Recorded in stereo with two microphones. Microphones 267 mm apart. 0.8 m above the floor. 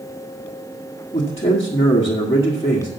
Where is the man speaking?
20° left (ahead or behind), 1.7 m.